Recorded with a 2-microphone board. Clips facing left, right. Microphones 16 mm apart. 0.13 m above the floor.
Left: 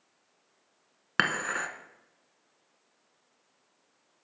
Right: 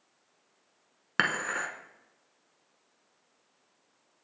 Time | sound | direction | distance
1.2 | dishes clattering | 10° left (ahead or behind) | 0.7 m